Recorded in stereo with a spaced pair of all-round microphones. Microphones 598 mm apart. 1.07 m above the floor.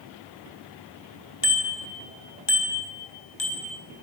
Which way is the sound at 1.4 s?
45° left (ahead or behind).